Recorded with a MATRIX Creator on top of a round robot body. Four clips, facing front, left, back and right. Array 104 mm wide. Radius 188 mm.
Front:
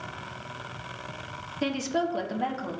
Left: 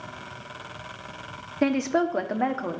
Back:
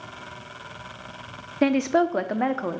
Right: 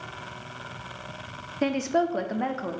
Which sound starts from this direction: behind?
A woman speaking, at 1.6 s.